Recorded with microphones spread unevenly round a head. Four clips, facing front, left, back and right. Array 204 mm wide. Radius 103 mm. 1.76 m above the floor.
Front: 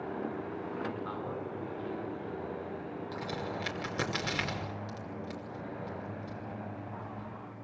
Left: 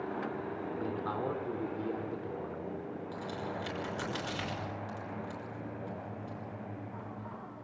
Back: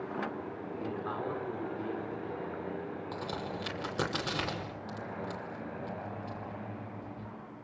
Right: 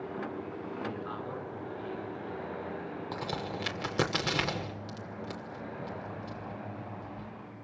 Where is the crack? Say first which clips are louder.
Right 3 dB, front 2 dB; 95° right, 5.5 m.